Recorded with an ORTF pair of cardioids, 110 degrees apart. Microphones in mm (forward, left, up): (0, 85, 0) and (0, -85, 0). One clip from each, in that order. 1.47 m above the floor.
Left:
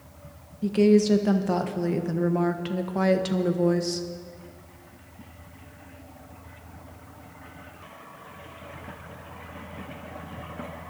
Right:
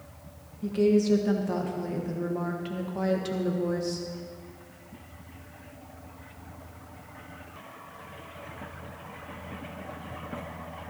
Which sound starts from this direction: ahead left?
A woman speaking, at 0.6 s.